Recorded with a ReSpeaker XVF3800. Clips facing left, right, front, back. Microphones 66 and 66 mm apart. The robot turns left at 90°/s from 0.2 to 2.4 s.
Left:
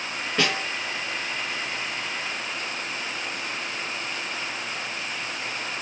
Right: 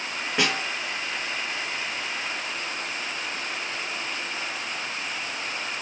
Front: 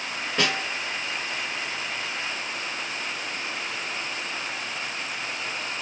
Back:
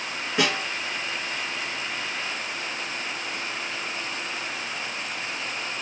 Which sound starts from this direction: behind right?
A snare drum, at 0.4 s.